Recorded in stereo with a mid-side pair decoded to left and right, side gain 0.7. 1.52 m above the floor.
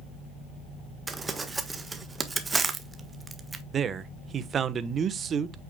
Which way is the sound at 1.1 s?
20° right.